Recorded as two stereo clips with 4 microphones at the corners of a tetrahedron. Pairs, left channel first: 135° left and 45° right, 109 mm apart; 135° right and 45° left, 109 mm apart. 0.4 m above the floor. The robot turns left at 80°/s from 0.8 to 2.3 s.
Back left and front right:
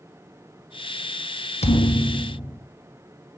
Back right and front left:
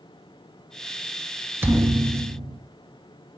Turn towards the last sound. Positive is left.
turn(degrees=60)